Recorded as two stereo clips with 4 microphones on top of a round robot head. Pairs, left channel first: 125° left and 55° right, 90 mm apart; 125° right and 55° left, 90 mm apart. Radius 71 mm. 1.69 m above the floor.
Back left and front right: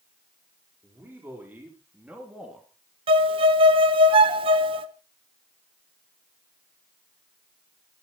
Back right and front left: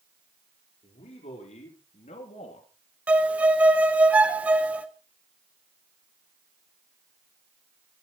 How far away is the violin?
About 1.1 m.